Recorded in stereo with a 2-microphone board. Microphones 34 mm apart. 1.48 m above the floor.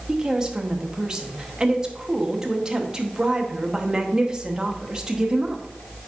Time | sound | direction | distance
0.1 | a woman speaking | 20° right (ahead or behind) | 1.0 m